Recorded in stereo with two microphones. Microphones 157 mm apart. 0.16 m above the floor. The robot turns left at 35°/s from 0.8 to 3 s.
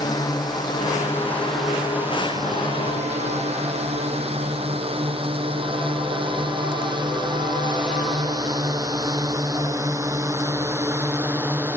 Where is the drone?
25° left (ahead or behind); by 11.8 s 15° right (ahead or behind).